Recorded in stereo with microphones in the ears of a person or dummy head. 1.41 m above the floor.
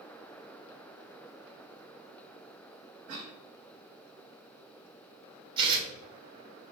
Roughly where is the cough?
Right.